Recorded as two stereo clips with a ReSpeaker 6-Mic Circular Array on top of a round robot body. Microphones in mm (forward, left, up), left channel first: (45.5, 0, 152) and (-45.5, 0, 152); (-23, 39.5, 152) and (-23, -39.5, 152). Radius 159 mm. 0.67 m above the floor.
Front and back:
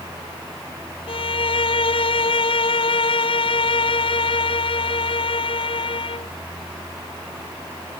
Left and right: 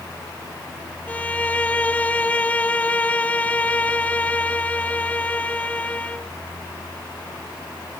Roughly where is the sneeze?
No sneeze in this recording.